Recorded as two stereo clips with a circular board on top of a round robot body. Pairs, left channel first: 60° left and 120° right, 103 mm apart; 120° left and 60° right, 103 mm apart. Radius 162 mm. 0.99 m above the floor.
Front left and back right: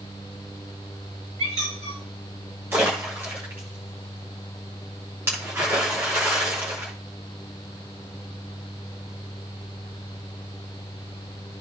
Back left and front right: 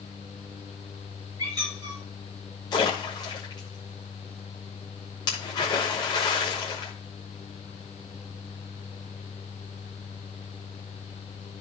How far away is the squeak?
About 6 m.